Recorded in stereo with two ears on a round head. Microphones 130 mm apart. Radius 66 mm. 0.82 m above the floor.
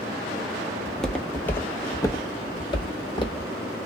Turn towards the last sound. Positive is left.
turn(degrees=35)  # may be behind; listen again after turning